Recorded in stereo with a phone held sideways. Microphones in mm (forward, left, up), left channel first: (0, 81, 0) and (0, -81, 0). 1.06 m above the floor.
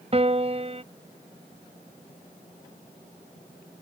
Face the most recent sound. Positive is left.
turn(degrees=-40)  # may be behind; listen again after turning